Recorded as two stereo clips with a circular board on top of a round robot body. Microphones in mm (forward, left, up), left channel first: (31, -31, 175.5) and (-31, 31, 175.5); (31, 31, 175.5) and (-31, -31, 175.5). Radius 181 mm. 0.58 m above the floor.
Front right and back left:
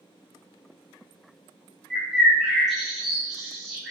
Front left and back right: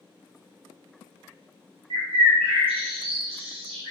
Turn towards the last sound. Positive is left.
turn(degrees=-135)